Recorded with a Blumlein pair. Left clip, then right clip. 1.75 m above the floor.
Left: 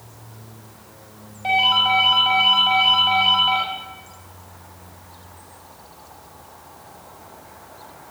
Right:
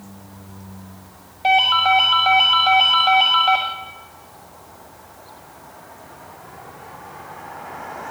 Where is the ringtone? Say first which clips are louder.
Right 2 dB; 70° right, 7 m.